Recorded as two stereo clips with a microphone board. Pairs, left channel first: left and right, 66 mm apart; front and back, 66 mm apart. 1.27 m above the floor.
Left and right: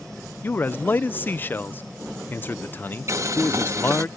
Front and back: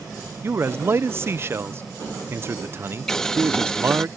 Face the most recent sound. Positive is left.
turn(degrees=-80)